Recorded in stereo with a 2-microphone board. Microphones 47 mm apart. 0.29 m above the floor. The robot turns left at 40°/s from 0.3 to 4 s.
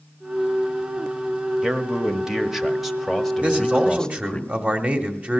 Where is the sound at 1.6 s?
15° right (ahead or behind), 0.9 m; by 4.4 s 15° left (ahead or behind), 0.9 m.